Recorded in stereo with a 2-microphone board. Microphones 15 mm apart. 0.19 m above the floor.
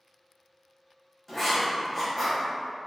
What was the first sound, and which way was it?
Writing, 25° left (ahead or behind).